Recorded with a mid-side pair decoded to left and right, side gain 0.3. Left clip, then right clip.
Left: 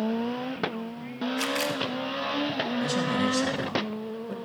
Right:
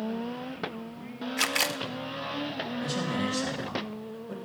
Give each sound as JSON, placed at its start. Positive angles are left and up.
{"t": 1.4, "sound": "a camera shutter", "azimuth_deg": -60, "distance_m": 0.6}
{"t": 2.8, "sound": "a man speaking", "azimuth_deg": 45, "distance_m": 2.5}